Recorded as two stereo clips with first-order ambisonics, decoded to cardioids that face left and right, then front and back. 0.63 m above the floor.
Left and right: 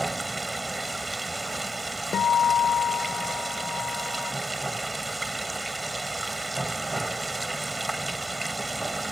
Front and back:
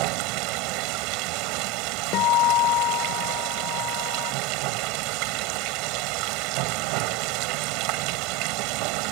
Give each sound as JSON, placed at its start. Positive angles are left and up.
{"t": 0.0, "sound": "running water", "azimuth_deg": -175}
{"t": 2.1, "sound": "a guitar", "azimuth_deg": 30}